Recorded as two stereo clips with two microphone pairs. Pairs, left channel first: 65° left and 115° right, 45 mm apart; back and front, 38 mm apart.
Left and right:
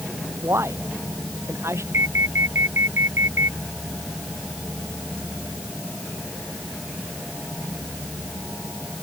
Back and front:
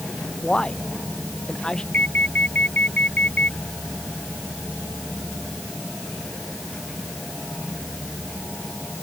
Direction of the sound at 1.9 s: 135° right.